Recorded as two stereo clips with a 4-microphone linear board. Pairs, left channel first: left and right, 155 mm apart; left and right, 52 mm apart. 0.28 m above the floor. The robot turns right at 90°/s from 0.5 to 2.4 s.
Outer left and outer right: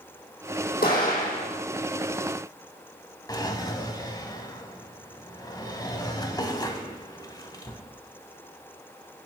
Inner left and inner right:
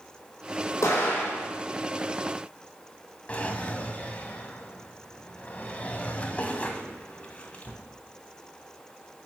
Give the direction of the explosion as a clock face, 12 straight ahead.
9 o'clock.